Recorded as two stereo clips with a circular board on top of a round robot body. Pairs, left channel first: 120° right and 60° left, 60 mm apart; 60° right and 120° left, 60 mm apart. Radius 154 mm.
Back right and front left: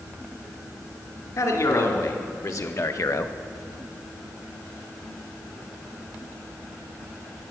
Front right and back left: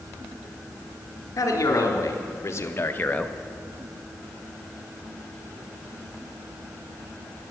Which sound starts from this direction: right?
A man speaking, at 1.4 s.